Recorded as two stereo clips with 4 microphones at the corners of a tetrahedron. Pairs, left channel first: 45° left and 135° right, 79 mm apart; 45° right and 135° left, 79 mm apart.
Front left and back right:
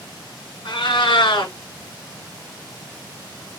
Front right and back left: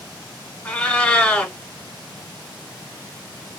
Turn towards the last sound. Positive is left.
turn(degrees=35)